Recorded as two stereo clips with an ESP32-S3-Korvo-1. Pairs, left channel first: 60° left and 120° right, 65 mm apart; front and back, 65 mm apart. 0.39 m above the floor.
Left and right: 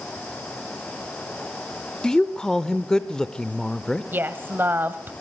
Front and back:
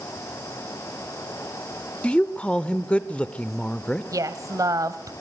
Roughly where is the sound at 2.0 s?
Ahead.